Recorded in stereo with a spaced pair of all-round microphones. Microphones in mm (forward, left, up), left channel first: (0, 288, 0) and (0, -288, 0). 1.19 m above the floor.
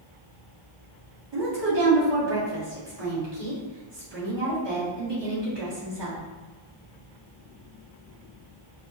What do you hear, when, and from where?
1.3 s a woman speaking: 45° right (ahead or behind), 1.4 m